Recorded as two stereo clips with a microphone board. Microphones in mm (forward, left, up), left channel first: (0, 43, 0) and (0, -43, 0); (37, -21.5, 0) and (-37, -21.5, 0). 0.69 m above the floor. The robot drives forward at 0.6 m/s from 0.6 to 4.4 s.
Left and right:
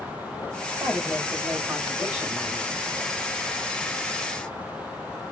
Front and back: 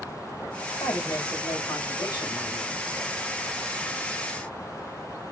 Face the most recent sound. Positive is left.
turn(degrees=-45)